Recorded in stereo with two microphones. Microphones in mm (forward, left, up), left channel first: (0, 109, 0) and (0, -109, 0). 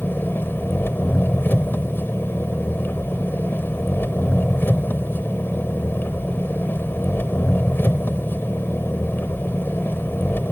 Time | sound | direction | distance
0.0 | an engine running | 10° left (ahead or behind) | ?